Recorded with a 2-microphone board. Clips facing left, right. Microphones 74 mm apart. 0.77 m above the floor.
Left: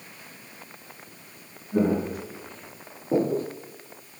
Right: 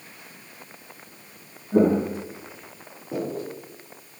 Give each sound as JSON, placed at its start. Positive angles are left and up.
{"t": 1.7, "sound": "footsteps", "side_deg": -40, "distance_m": 1.4}